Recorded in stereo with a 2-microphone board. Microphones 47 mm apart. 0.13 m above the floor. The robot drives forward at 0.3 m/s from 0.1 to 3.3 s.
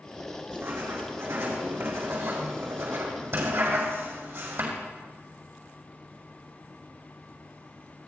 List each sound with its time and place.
0.5 s writing: 65° right (ahead or behind), 5 m; by 4.7 s 75° right (ahead or behind), 4.5 m